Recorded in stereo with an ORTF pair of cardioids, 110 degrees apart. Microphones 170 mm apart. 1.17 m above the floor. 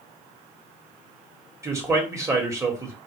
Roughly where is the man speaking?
Ahead.